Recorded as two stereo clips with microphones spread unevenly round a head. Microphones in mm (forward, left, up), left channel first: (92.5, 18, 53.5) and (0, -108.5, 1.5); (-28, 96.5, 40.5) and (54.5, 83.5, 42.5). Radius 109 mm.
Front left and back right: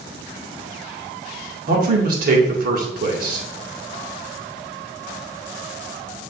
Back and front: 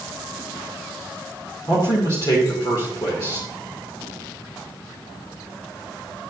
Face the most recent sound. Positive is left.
turn(degrees=-130)